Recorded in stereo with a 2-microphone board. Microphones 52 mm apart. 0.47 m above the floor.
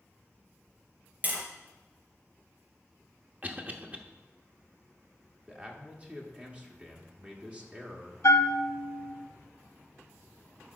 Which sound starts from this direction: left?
A bell, at 8.2 s.